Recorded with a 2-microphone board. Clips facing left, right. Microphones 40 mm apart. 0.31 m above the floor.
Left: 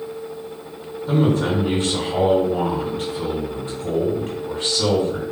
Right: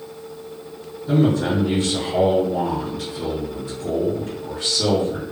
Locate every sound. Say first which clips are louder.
1.1 s a man speaking: even; 30° left (ahead or behind), 1.9 m